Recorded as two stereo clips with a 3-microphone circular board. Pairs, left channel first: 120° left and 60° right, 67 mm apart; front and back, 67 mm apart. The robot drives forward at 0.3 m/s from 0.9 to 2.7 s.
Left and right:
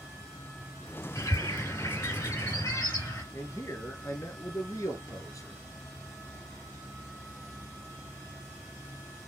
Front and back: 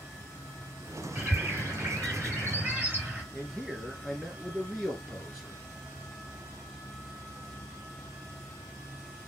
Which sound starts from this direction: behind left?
A bird, at 1.1 s.